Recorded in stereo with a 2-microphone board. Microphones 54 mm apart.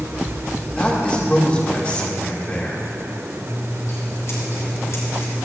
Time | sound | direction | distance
0.8 | a man speaking | 25° left (ahead or behind) | 1.5 m
3.4 | scissors | 60° left (ahead or behind) | 3 m